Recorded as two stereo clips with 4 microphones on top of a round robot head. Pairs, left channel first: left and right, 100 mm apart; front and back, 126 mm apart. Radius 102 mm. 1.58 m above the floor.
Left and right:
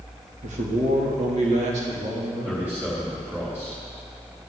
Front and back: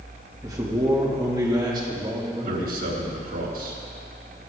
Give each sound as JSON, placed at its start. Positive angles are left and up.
{"t": 0.4, "sound": "a man speaking", "azimuth_deg": -105, "distance_m": 2.0}
{"t": 2.5, "sound": "a man speaking", "azimuth_deg": -165, "distance_m": 3.5}